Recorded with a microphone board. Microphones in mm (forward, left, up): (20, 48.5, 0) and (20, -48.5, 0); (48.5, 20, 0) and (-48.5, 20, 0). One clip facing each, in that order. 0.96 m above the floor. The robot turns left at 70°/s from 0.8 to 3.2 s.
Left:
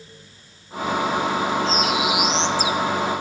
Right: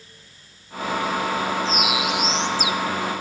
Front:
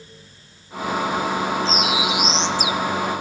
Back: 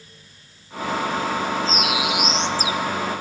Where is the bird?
155° right, 1.2 m; by 2.8 s 125° left, 1.2 m.